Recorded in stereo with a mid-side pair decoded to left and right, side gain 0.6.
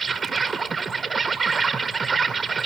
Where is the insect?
25° right, 1.1 m.